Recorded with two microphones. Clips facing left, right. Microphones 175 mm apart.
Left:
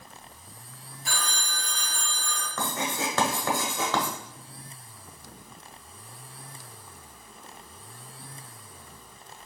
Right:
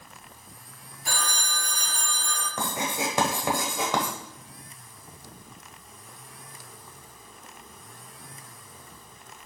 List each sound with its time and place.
1.1 s a phone ringing: 50° right (ahead or behind), 1.5 m
2.6 s writing: 15° right (ahead or behind), 1.1 m